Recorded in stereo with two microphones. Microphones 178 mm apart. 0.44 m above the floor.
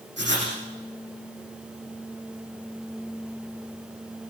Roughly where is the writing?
Right.